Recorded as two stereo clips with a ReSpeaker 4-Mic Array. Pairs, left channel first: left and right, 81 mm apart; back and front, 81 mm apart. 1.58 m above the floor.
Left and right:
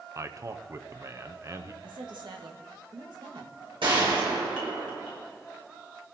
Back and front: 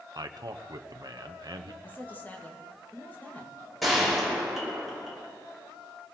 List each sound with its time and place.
0.1 s a man speaking: 40° right, 0.8 m
1.8 s a woman speaking: 115° right, 1.9 m
3.8 s a gunshot: 90° right, 5 m